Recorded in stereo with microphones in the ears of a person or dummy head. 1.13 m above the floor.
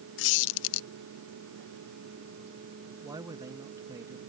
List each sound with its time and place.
0.2 s a squeak: 70° left (ahead or behind)
3.0 s a man speaking: 20° right (ahead or behind)